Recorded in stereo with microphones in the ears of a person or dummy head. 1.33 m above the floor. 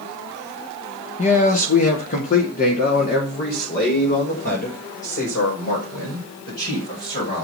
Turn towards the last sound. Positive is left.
turn(degrees=50)  # may be behind; listen again after turning